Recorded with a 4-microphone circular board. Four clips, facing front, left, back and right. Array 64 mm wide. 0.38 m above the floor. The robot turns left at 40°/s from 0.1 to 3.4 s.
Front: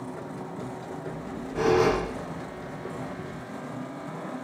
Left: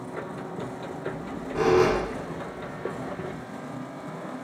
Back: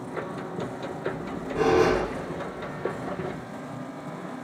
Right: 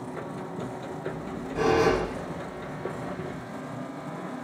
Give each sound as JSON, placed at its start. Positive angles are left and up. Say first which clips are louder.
{"t": 1.1, "sound": "a squeak", "louder": "left 1 dB, back 6 dB", "azimuth_deg": 125, "distance_m": 1.6}